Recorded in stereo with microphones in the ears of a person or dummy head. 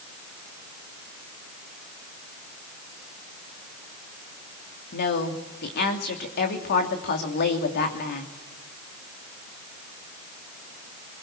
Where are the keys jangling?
No keys jangling in this recording.